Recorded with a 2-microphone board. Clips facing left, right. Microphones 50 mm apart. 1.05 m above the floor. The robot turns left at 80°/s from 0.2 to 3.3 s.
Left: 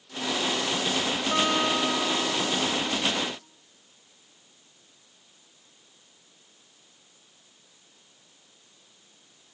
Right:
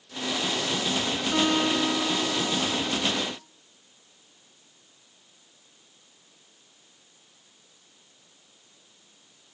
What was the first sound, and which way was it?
A guitar, 100° left.